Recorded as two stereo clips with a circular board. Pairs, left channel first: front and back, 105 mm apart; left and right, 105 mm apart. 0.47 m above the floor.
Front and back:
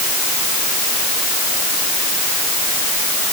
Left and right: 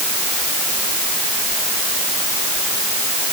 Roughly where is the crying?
I don't hear crying.